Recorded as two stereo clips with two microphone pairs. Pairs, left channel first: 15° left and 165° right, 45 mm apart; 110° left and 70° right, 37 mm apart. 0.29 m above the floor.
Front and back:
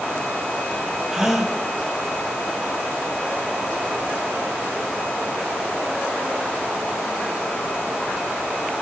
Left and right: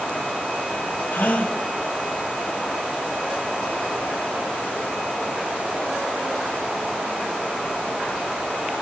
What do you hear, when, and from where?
1.1 s a gasp: 120° left, 0.9 m